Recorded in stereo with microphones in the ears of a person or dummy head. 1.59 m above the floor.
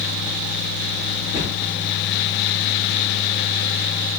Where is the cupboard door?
30° right (ahead or behind), 5 m.